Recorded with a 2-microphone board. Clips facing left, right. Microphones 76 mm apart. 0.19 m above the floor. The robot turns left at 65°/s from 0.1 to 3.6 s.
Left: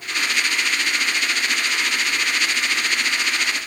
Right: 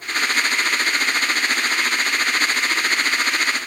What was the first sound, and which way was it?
Only background noise.